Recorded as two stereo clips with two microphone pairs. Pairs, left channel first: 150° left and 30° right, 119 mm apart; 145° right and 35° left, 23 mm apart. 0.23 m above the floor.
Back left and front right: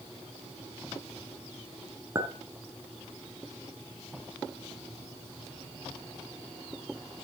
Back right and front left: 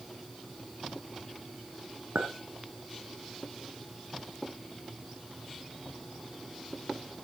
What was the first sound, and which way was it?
A clink, 30° left.